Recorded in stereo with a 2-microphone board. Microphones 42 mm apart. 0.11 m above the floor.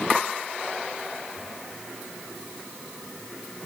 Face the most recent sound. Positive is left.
No sound to turn to.